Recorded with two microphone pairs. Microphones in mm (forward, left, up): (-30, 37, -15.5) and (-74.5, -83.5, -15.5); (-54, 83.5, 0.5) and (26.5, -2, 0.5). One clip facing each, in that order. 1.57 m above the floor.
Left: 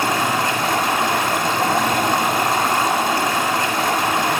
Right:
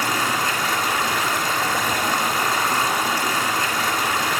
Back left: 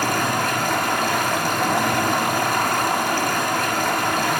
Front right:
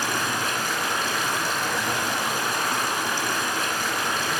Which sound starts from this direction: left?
Running water, at 0.0 s.